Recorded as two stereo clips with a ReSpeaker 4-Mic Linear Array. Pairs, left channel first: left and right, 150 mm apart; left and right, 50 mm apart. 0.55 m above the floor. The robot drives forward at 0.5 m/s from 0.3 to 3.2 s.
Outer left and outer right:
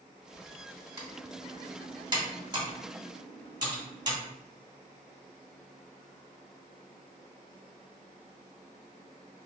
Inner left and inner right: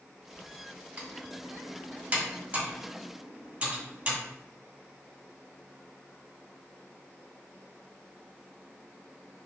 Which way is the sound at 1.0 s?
25° right (ahead or behind).